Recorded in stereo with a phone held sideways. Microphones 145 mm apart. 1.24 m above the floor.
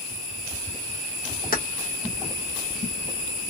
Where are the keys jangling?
75° left (ahead or behind), 0.9 m.